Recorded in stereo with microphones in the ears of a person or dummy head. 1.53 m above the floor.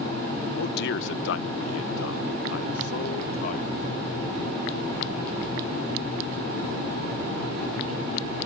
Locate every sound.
0.6 s a man speaking: 65° left (ahead or behind); by 3.8 s 30° left (ahead or behind)